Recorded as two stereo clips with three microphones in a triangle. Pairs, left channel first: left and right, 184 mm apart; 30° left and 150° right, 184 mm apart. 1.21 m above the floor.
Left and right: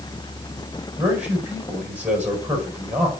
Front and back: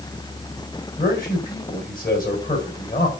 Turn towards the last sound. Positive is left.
turn(degrees=-10)